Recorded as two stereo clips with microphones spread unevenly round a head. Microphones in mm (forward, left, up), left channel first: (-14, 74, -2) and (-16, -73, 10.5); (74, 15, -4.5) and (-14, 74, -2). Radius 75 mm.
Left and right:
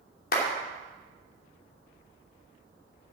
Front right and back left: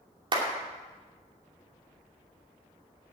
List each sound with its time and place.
0.3 s a clap: 105° left, 2.5 m